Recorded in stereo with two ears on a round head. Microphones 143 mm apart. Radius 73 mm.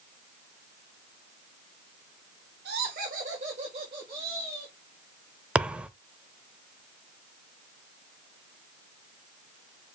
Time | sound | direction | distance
2.6 | laughter | 65° right (ahead or behind) | 1.8 m
5.5 | a thud | 5° right (ahead or behind) | 0.6 m